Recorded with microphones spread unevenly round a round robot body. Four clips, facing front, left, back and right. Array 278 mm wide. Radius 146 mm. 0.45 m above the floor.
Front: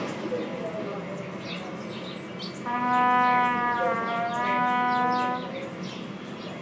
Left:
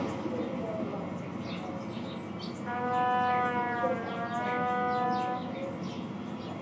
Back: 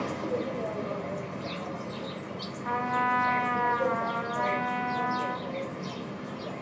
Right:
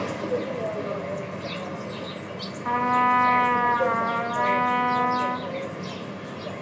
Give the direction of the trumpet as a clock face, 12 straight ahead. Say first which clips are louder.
Right 8 dB, front 5 dB; 2 o'clock.